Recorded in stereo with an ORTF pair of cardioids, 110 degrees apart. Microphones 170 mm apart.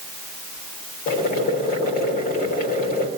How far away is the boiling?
About 3 m.